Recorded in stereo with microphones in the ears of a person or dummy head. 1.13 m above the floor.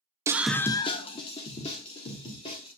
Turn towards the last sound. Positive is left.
turn(degrees=35)  # may be behind; listen again after turning